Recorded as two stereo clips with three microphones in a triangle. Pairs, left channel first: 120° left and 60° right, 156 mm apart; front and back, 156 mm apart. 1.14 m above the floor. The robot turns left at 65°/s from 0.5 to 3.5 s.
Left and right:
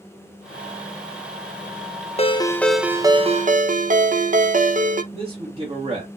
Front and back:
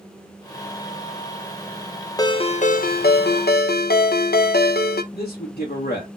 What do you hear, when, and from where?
2.2 s a ringtone: 65° left, 0.6 m; by 5.0 s 20° right, 0.6 m
5.1 s a man speaking: 10° right, 1.4 m